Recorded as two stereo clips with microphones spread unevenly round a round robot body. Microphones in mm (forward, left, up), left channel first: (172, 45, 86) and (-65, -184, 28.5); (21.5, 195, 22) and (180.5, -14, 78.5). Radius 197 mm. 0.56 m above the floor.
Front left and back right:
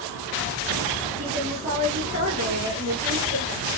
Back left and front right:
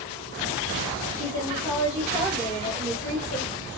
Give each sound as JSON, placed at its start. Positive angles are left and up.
{"t": 1.2, "sound": "a woman speaking", "azimuth_deg": -140, "distance_m": 1.6}